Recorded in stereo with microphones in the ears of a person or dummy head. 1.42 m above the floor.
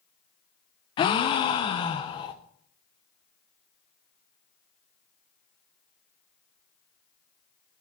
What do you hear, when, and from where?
1.0 s a gasp: 25° left (ahead or behind), 0.6 m